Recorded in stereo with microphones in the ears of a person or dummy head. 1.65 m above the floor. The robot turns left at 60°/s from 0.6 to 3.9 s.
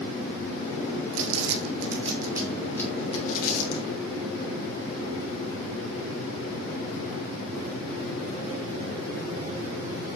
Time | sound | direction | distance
1.1 | crumpling | 80° right | 1.9 m